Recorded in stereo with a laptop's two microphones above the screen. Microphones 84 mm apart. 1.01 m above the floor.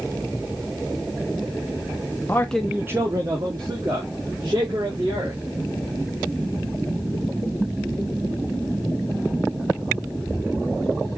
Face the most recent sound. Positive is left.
turn(degrees=-55)  # may be behind; listen again after turning